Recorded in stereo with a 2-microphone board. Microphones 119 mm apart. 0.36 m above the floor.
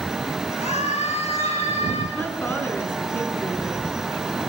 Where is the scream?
65° left (ahead or behind), 7 m; by 2.0 s 60° left (ahead or behind), 5.5 m.